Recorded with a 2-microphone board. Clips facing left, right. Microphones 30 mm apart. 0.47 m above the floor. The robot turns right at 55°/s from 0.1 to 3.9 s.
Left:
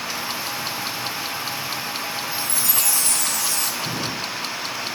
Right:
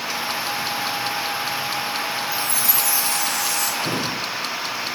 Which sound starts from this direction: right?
A drawer, at 3.8 s.